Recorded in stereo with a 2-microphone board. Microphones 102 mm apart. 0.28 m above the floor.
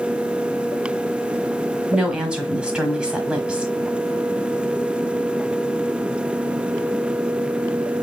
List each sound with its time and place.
1.9 s a woman speaking: 10° right (ahead or behind), 1.3 m